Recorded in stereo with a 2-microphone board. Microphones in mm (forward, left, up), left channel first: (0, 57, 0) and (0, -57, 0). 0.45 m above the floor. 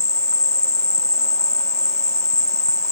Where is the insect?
70° right (ahead or behind).